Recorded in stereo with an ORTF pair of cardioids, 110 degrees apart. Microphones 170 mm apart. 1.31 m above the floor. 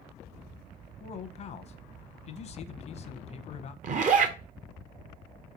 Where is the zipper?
45° right, 0.7 m.